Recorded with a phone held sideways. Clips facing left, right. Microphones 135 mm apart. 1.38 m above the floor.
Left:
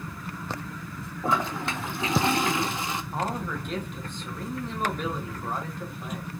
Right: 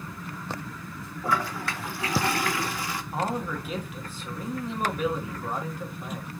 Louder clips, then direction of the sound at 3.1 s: Right 3 dB; 5° right (ahead or behind).